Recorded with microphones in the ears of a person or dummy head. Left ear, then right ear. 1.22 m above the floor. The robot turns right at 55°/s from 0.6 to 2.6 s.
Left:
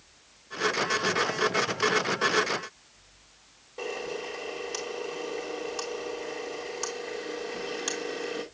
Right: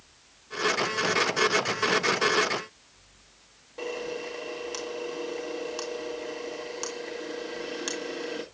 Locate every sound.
3.8 s a camera shutter: 5° right (ahead or behind), 1.5 m